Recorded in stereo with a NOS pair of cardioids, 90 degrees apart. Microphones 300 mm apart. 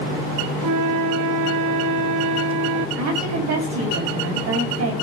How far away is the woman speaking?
About 4.5 m.